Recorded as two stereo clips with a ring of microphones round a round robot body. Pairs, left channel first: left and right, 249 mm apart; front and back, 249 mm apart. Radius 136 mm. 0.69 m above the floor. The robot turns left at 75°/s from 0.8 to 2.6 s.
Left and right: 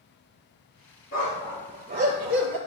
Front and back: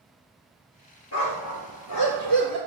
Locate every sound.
1.1 s a dog barking: 30° left, 4.5 m; by 2.6 s 80° right, 4.5 m